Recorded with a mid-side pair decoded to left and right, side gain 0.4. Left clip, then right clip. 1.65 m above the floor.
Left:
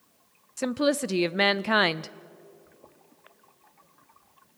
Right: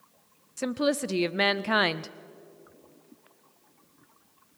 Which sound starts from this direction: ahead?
A woman speaking, at 0.6 s.